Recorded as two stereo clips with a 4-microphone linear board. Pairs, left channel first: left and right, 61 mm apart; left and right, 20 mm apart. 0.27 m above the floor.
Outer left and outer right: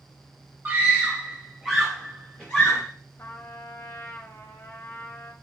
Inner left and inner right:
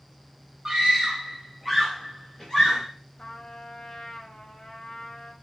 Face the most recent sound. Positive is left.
turn(degrees=40)  # may be behind; listen again after turning